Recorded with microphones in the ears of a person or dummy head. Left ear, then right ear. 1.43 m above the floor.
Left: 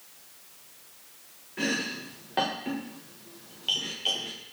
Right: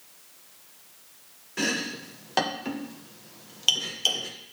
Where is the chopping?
75° right (ahead or behind), 1.1 m.